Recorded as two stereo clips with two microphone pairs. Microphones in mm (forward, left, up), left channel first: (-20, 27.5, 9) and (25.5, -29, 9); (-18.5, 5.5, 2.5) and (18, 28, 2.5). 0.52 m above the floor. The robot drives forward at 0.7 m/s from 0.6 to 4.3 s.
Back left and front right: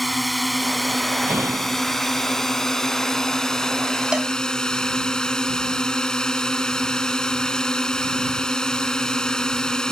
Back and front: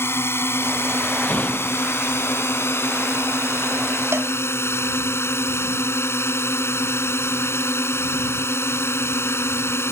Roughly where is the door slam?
Right.